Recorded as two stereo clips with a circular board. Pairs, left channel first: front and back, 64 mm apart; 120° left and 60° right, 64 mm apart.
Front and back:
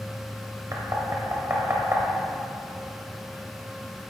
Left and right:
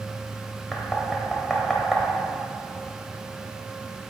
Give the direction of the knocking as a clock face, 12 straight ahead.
5 o'clock.